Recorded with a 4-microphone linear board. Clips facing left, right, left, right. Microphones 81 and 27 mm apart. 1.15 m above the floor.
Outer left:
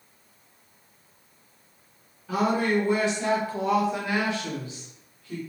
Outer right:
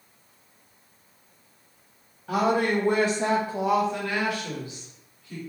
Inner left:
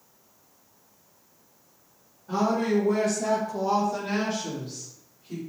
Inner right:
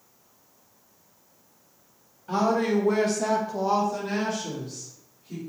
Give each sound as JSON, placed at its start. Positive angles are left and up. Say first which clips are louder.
{"t": 2.3, "sound": "a woman speaking", "louder": "outer right 1 dB, inner right 1 dB", "side_deg": -70, "distance_m": 1.2}